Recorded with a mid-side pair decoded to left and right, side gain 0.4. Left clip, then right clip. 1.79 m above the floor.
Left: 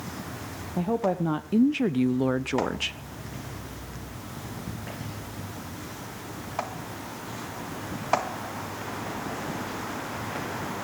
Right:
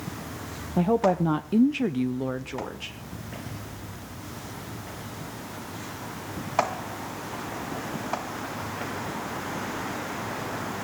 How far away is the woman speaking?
About 1.2 m.